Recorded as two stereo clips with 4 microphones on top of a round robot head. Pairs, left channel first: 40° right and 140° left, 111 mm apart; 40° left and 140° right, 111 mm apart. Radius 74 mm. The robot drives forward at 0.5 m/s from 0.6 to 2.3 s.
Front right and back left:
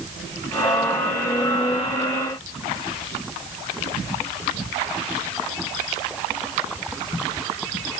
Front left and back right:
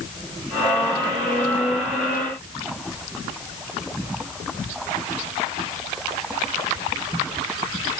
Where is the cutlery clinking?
No cutlery clinking in this recording.